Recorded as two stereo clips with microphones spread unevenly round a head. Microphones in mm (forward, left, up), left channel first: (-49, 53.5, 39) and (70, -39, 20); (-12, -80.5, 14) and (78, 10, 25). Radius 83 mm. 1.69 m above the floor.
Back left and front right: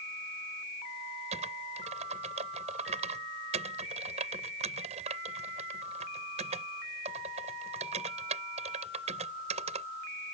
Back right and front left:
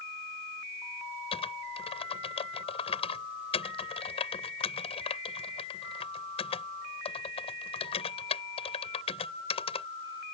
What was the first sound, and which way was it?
Typing on a keyboard, 90° right.